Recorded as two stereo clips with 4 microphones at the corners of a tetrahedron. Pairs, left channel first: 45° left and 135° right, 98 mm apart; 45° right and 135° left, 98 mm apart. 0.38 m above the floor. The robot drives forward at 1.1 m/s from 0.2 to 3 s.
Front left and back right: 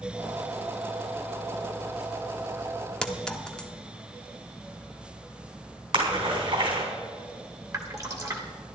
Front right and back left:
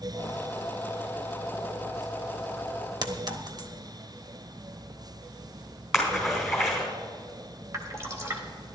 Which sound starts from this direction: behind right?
A splash, at 5.9 s.